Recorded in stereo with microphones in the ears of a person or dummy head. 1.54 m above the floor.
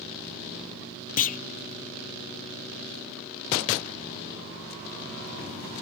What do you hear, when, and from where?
1.2 s a clunk: 45° left (ahead or behind)